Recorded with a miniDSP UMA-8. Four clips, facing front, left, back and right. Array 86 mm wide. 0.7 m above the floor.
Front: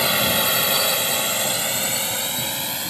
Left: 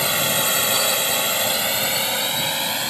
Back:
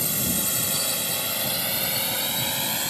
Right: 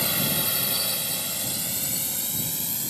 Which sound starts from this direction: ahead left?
A drone, at 0.0 s.